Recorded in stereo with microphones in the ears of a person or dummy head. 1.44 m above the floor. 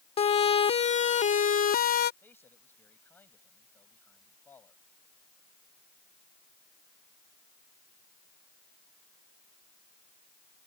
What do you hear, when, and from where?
0.2 s a siren: 30° left (ahead or behind); by 2.1 s 50° left (ahead or behind)
2.2 s a man speaking: 10° left (ahead or behind)